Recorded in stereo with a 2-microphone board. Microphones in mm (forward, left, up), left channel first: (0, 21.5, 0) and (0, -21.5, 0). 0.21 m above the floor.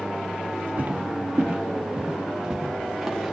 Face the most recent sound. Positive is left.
turn(degrees=0)  # may be behind; listen again after turning